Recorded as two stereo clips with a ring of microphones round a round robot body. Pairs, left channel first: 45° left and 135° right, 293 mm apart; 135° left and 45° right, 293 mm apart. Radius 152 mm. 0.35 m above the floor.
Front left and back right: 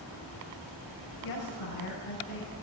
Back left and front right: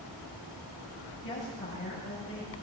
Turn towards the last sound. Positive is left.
turn(degrees=85)